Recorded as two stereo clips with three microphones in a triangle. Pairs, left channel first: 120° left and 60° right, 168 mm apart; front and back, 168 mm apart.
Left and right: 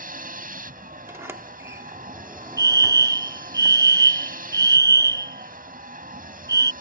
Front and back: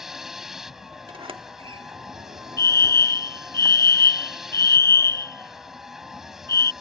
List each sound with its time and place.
0.0 s a vehicle: 90° right
1.1 s a sliding door: 130° right
2.6 s a fire alarm: 40° right